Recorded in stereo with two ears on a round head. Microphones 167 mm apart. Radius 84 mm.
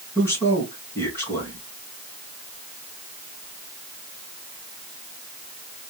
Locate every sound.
0.1 s a man speaking: 15° left (ahead or behind), 3.5 m